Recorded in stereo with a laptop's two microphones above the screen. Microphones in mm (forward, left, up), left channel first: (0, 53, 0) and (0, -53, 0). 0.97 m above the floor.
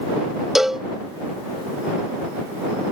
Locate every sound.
0.6 s a cowbell: 5° right (ahead or behind)